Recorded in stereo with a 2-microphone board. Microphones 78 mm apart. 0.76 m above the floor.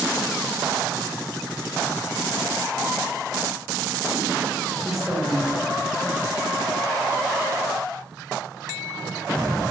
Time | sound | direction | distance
4.8 | a woman speaking | 5° right (ahead or behind) | 1.0 m